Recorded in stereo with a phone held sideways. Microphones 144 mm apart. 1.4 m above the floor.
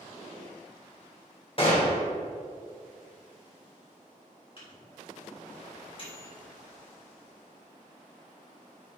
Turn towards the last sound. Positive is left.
turn(degrees=40)  # may be behind; listen again after turning